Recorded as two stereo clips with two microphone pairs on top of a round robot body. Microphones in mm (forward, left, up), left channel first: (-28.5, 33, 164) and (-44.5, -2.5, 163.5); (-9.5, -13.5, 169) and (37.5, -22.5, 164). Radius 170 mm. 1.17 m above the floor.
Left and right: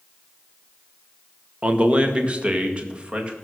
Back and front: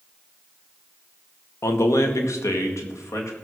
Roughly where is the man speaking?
Behind.